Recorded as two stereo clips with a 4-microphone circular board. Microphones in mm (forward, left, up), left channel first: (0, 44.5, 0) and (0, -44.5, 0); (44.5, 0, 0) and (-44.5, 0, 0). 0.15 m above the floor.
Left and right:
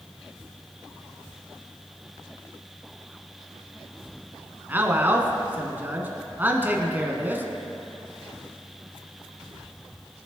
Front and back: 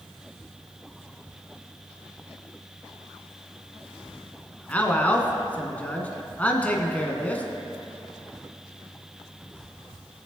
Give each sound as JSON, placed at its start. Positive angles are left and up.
{"t": 4.7, "sound": "a man speaking", "azimuth_deg": -55, "distance_m": 1.5}